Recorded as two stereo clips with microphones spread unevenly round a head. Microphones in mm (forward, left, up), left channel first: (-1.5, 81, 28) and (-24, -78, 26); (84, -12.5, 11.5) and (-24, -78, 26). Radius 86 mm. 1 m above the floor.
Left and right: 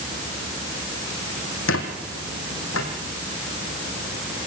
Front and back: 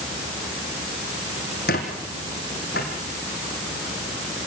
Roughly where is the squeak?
Left.